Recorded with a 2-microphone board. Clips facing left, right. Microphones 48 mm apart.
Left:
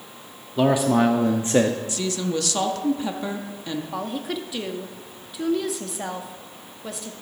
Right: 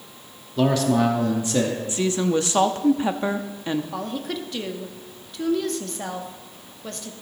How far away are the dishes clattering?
No dishes clattering in this recording.